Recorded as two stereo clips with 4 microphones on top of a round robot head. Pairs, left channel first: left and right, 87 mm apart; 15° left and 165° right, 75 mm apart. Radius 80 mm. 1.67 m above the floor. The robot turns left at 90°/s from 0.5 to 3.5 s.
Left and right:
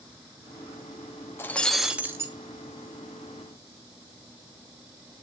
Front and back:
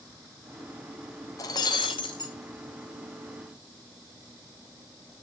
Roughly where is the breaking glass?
Ahead left.